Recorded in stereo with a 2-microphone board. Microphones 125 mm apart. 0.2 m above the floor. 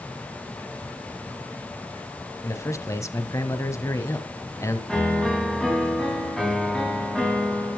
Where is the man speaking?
25° left (ahead or behind), 1.0 m.